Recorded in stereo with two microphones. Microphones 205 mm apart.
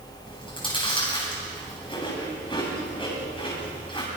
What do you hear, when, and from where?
0.2 s chewing: 25° left (ahead or behind), 8.5 m